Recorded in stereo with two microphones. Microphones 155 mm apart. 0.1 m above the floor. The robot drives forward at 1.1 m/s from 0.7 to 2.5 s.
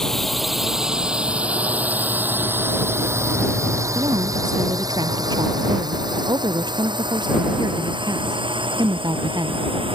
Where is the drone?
5° left (ahead or behind); by 9.9 s 35° right (ahead or behind).